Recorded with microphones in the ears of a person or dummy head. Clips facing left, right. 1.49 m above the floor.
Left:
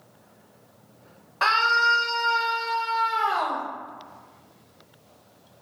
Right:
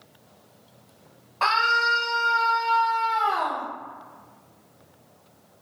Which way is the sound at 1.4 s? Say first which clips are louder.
Even; 10° left (ahead or behind).